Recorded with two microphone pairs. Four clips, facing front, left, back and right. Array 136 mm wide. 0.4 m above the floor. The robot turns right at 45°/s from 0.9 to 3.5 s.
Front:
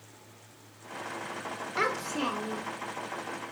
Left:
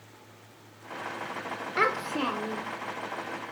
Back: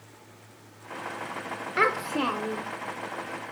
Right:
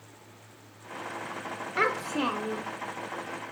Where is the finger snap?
No finger snap in this recording.